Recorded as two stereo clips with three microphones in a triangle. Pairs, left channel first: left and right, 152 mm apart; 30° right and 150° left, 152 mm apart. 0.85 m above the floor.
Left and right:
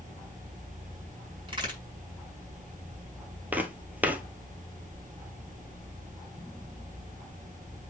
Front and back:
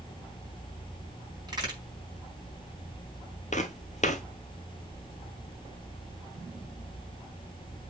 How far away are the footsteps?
About 1.4 m.